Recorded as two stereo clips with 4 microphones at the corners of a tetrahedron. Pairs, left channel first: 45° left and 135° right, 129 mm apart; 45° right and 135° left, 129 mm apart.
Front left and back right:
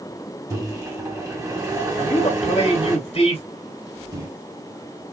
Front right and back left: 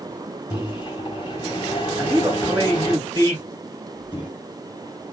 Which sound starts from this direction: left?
A man speaking, at 2.0 s.